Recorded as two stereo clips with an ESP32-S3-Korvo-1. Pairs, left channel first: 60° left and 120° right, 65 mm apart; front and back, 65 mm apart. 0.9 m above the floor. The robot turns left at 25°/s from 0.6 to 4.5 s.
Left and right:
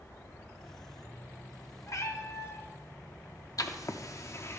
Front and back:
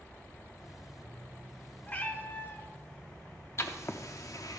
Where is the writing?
40° left, 0.7 m; by 4.6 s 20° left, 0.7 m.